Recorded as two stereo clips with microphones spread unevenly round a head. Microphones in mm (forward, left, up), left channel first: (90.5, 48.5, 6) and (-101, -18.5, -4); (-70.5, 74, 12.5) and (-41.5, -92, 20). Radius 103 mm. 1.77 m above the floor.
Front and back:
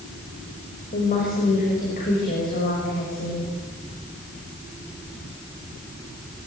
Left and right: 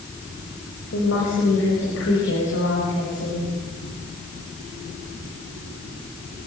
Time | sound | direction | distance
0.9 | a woman speaking | 70° left | 6.5 m